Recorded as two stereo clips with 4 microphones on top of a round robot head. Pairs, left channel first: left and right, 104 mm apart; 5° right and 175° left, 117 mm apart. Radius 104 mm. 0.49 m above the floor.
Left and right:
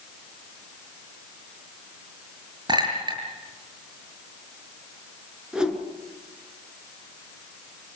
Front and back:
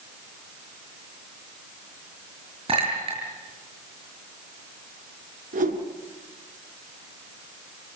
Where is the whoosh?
170° right, 4 m.